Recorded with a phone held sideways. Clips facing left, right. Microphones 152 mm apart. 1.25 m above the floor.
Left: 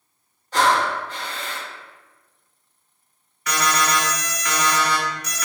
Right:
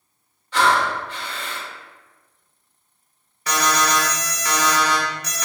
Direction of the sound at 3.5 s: 30° right (ahead or behind).